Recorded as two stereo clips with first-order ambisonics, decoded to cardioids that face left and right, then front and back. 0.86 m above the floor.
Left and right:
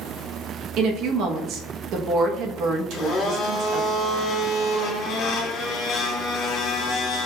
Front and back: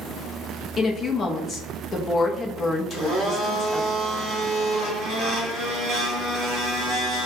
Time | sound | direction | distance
0.8 | a woman speaking | 60° right | 0.7 m
2.9 | a blender | 115° left | 1.7 m